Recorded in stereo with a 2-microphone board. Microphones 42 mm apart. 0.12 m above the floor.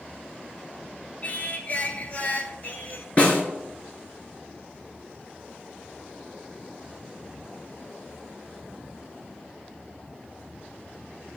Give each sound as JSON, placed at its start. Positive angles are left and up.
{"t": 1.2, "sound": "singing", "side_deg": 40, "distance_m": 0.8}
{"t": 3.2, "sound": "a snare drum", "side_deg": 35, "distance_m": 1.7}